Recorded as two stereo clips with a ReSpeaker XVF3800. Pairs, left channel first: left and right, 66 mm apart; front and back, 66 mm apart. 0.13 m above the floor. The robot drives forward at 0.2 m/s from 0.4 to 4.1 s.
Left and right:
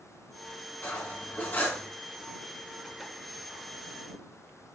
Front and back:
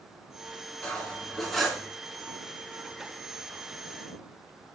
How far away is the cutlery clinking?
About 0.7 m.